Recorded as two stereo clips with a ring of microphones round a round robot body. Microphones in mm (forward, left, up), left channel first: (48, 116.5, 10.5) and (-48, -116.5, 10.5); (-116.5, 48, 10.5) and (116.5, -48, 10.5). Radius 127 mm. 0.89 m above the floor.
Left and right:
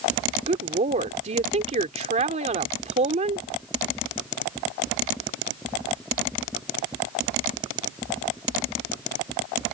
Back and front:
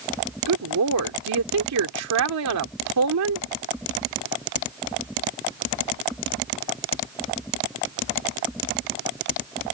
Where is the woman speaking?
50° right.